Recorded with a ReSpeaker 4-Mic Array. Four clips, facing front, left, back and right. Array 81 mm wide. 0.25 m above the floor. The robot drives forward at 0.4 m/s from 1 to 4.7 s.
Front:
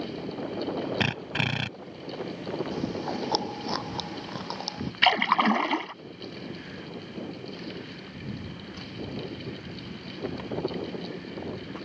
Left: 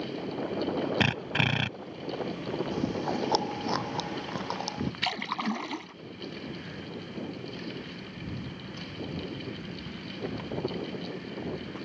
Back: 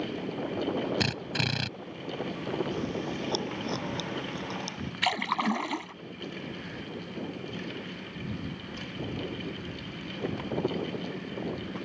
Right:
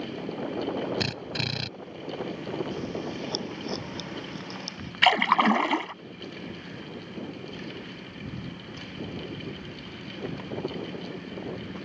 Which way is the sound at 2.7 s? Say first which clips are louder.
Left 3 dB, front 2 dB; 55° left.